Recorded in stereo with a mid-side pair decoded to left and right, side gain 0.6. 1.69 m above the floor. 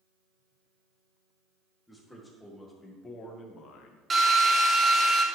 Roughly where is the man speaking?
Ahead.